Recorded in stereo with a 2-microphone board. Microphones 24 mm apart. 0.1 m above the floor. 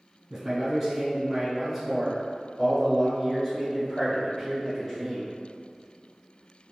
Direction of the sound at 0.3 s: 15° right (ahead or behind).